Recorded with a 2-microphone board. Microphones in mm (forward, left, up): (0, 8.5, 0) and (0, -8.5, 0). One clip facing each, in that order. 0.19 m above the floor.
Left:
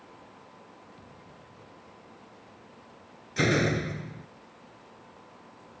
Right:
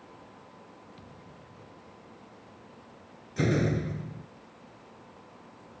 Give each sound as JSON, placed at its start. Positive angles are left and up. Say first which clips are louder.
{"t": 1.0, "sound": "a thud", "louder": "even", "side_deg": -25}
{"t": 3.4, "sound": "a door slam", "louder": "left 2 dB", "side_deg": 40}